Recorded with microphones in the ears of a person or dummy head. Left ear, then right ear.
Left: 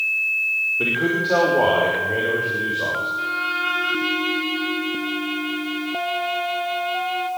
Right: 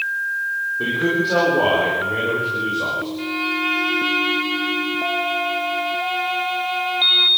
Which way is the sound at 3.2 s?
Centre (ahead or behind).